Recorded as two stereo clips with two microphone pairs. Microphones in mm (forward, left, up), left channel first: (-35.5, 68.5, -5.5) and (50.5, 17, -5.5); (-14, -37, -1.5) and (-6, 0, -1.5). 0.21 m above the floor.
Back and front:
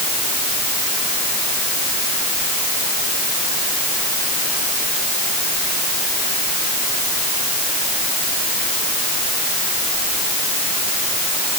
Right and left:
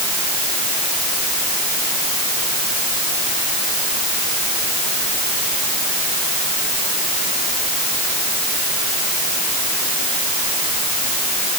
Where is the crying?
I don't hear crying.